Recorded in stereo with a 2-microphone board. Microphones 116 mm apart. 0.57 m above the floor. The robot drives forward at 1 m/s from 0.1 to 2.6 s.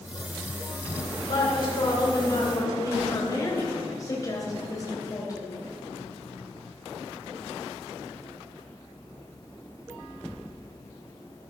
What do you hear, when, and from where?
1.2 s a woman speaking: 50° left (ahead or behind), 2 m; by 5.5 s 30° left (ahead or behind), 3 m